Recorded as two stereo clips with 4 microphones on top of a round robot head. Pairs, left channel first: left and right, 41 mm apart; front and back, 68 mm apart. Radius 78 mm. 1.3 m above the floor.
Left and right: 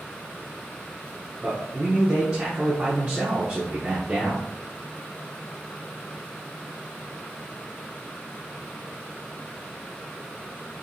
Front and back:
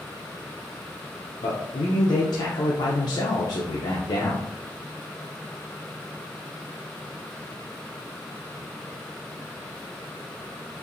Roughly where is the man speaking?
Ahead.